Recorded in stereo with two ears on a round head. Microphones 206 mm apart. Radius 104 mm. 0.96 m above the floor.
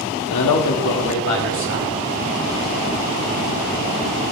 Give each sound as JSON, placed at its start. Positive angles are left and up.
{"t": 0.3, "sound": "a man speaking", "side_deg": 80, "distance_m": 1.4}